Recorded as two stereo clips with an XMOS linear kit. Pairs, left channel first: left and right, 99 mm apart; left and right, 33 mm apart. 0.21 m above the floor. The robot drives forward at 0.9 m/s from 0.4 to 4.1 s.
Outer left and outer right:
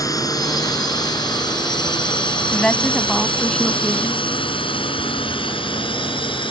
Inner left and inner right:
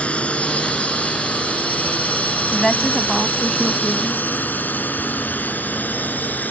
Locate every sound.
0.0 s a drone: 35° left (ahead or behind); by 6.5 s 55° left (ahead or behind)
2.5 s a woman speaking: 10° left (ahead or behind); by 4.2 s 5° left (ahead or behind)